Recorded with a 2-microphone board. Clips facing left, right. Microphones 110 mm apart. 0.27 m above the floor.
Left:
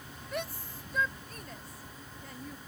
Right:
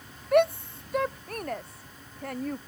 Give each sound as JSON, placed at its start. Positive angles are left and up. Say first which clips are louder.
{"t": 0.3, "sound": "a shout", "louder": "right 17 dB", "side_deg": -65}